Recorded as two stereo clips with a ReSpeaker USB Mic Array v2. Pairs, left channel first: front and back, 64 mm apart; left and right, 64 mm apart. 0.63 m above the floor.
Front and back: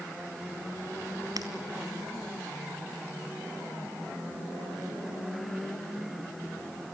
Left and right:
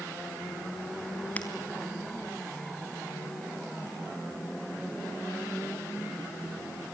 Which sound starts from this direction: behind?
Breaking glass, at 1.4 s.